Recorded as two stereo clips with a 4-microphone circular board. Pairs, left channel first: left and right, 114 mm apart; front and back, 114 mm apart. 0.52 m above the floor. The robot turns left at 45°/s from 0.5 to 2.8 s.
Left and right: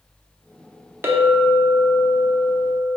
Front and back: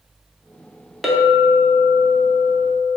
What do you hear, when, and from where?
1.0 s a clink: 90° right, 0.6 m; by 3.0 s 170° right, 0.6 m